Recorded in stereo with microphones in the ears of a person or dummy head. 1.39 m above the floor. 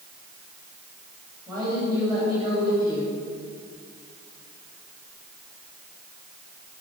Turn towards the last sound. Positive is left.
turn(degrees=-30)  # may be behind; listen again after turning